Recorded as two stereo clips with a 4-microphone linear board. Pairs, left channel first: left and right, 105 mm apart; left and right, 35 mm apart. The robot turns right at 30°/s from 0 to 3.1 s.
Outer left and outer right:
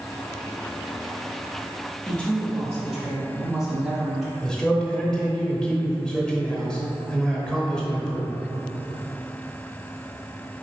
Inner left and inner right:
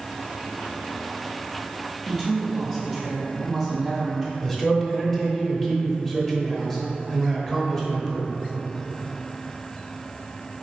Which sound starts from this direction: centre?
A man speaking, at 4.4 s.